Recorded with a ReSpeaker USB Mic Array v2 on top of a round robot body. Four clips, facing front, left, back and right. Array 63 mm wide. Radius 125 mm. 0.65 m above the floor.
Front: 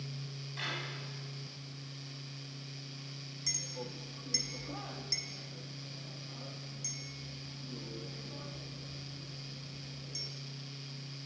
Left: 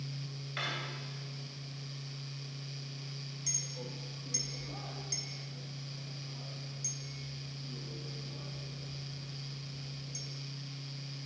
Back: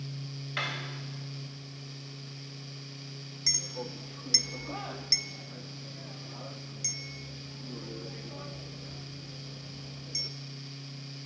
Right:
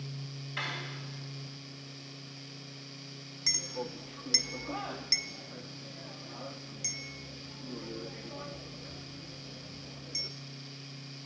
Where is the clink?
115° right, 0.7 m.